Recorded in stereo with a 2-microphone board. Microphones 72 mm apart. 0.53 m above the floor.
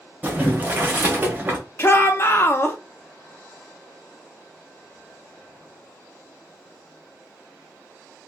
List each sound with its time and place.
0.2 s boiling: 25° right (ahead or behind), 1.0 m
1.8 s a shout: 30° left (ahead or behind), 0.7 m